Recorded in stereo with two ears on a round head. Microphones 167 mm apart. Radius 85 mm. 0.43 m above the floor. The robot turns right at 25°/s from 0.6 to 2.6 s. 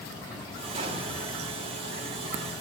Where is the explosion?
35° right (ahead or behind), 1.6 m; by 1.6 s 30° right (ahead or behind), 1.6 m.